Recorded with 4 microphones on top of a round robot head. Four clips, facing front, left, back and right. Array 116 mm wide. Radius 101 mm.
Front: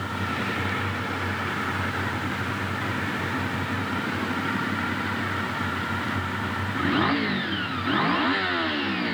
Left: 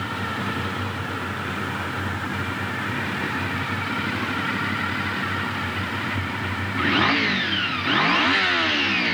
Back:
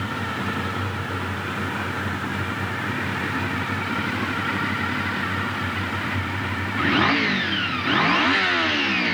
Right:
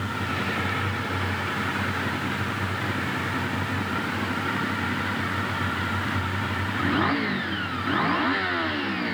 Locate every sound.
Only background noise.